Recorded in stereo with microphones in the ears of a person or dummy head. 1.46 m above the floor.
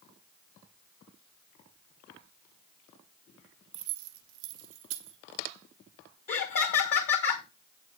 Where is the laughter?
50° left (ahead or behind), 1.2 m.